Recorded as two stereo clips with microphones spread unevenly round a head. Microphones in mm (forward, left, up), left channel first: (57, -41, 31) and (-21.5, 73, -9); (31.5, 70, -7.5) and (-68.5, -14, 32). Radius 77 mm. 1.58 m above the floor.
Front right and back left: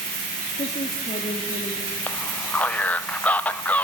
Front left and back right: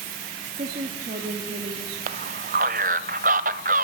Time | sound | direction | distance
0.5 | a woman speaking | 100° right | 2.5 m
2.1 | a man speaking | 130° right | 0.8 m